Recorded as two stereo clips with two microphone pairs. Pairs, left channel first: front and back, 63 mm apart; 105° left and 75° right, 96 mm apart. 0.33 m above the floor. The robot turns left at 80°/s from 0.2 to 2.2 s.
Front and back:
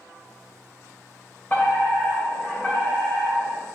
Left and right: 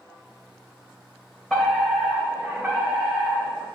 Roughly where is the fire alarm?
Ahead left.